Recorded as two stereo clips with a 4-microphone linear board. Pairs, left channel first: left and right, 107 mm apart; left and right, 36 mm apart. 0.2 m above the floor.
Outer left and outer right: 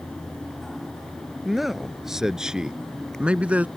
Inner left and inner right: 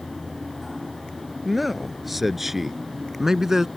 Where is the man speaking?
5° right (ahead or behind); by 3.7 s 15° right (ahead or behind).